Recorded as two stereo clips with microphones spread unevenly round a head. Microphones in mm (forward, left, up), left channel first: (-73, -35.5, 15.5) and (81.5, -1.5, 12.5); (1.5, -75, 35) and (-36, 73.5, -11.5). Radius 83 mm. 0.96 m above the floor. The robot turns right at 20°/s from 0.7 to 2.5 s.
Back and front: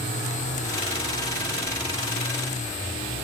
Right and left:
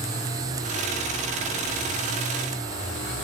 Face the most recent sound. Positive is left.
No sound to turn to.